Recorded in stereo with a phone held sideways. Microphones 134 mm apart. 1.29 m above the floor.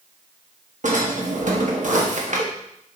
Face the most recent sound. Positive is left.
turn(degrees=-70)  # may be behind; listen again after turning